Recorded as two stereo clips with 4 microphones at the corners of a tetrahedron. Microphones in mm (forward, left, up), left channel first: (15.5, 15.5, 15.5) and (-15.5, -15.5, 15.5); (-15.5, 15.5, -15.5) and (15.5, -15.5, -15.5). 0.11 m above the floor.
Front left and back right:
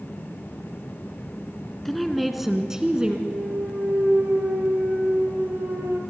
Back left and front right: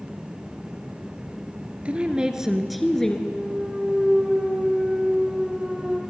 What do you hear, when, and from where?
1.9 s a woman speaking: 35° right, 1.6 m; by 3.2 s 170° right, 1.5 m
3.3 s a clunk: 125° right, 2.5 m